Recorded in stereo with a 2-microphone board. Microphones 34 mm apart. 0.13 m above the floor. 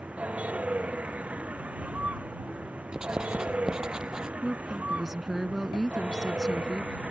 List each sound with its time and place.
0.0 s a vehicle: 45° right (ahead or behind)
2.9 s writing: 25° right (ahead or behind)
4.4 s a woman speaking: 10° right (ahead or behind)